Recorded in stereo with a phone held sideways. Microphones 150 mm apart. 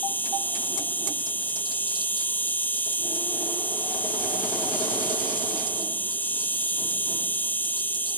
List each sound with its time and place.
0.0 s an insect: 10° left (ahead or behind)